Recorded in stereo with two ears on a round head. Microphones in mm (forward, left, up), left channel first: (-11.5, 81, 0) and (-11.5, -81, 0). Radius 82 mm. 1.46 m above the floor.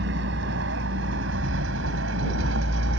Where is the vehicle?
75° right (ahead or behind); by 3.0 s 80° right.